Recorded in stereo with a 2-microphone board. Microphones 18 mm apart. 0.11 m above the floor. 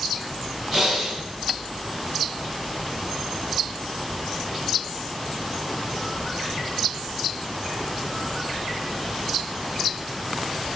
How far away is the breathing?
About 7.5 m.